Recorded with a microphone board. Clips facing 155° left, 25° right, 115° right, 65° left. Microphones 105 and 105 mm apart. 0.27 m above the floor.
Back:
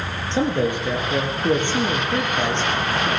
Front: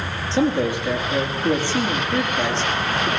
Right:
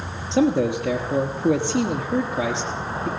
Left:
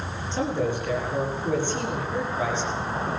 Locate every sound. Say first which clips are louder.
0.3 s a man speaking: front 1 dB, right 7 dB; 130° right, 5.5 m